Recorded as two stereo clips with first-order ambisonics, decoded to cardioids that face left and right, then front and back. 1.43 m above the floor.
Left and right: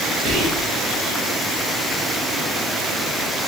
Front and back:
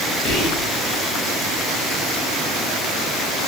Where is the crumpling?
I don't hear crumpling.